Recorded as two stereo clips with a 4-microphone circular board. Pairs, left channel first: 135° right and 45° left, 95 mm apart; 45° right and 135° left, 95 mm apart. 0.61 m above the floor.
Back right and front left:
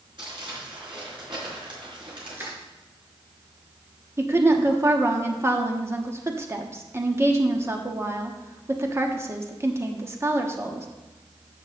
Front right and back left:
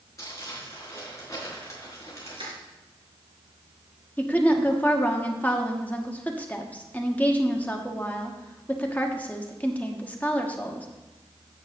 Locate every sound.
0.2 s crumpling: 15° left, 4.5 m
2.3 s crushing: 110° left, 3.5 m
4.2 s a woman speaking: 10° left, 1.2 m